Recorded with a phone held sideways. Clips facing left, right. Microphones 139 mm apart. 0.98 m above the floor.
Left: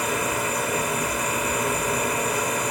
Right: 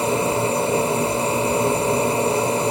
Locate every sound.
0.0 s a machine running: 30° right (ahead or behind), 0.8 m